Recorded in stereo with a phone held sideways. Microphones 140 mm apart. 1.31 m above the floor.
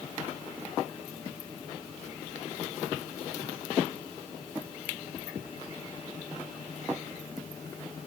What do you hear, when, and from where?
Only background noise.